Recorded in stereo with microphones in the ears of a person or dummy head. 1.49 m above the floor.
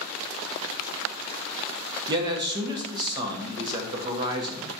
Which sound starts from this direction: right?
A man speaking, at 2.1 s.